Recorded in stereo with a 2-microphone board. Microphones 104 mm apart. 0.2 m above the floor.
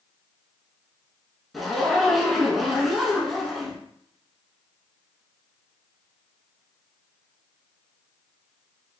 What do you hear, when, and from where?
1.5 s a zipper: centre (ahead or behind), 0.7 m